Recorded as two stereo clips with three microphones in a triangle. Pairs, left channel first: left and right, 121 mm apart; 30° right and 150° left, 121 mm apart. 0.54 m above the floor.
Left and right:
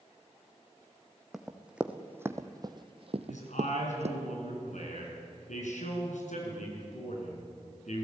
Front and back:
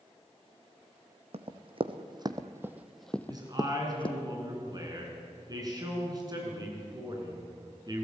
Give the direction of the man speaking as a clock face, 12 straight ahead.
9 o'clock.